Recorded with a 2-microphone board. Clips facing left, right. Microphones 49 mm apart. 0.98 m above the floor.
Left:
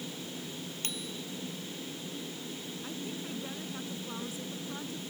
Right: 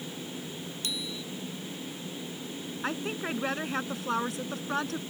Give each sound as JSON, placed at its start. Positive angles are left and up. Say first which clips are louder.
{"t": 0.8, "sound": "a bicycle bell", "louder": "right 5 dB", "side_deg": 45}
{"t": 2.8, "sound": "a woman speaking", "louder": "right 9 dB", "side_deg": -90}